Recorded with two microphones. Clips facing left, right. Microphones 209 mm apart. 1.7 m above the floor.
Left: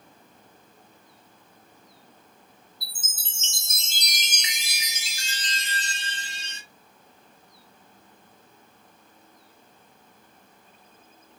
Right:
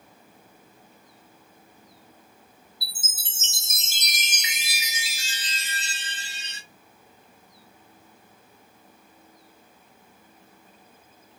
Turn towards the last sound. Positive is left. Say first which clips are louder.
# right 2 dB
turn(degrees=-5)  # may be behind; listen again after turning